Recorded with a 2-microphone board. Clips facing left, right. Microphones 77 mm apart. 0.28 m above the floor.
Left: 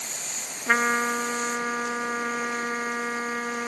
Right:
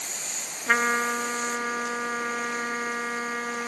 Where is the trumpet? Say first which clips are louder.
Left 1 dB; 5° left (ahead or behind).